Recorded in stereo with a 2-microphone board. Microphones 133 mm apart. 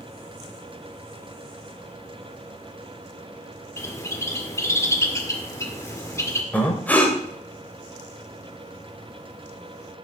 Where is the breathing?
10° left (ahead or behind), 2 m.